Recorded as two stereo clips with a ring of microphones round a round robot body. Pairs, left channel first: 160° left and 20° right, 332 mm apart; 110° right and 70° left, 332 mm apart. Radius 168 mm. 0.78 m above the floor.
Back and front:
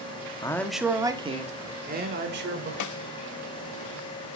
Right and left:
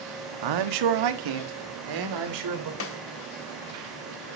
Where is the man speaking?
80° left, 1.3 m; by 2.7 s 35° left, 3 m.